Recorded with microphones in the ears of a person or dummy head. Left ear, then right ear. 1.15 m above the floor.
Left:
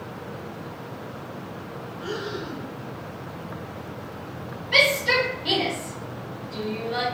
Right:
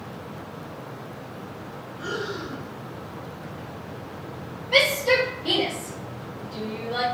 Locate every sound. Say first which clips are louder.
2.0 s breathing: right 1 dB; 60° right (ahead or behind), 1.0 m
4.7 s a shout: even; 10° left (ahead or behind), 1.5 m